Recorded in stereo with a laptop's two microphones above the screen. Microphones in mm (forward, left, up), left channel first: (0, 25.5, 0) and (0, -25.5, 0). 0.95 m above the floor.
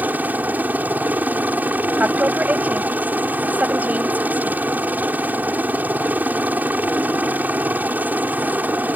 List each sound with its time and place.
0.0 s a helicopter: 35° right (ahead or behind)
2.0 s a woman speaking: 30° right (ahead or behind)